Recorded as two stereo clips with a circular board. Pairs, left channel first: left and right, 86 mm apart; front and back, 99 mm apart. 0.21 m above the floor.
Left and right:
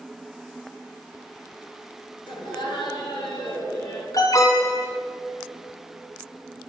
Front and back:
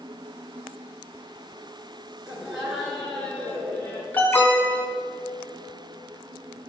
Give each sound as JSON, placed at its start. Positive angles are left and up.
{"t": 2.3, "sound": "laughter", "azimuth_deg": 100, "distance_m": 2.5}
{"t": 4.1, "sound": "an alarm", "azimuth_deg": 65, "distance_m": 1.2}